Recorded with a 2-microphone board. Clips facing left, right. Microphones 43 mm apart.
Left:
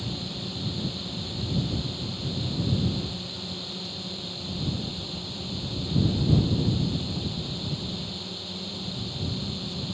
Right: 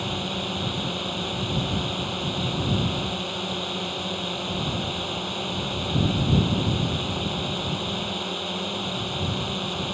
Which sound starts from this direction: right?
A drone, at 0.0 s.